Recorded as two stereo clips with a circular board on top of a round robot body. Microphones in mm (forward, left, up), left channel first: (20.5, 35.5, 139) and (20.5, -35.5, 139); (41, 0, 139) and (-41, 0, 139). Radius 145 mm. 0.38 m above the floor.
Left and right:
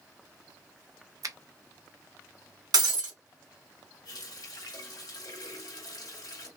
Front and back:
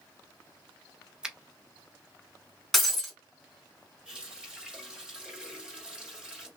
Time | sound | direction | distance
1.2 | a finger snap | 100° right | 0.9 m
2.7 | breaking glass | 90° right | 2 m
4.0 | a running tap | 100° left | 2.5 m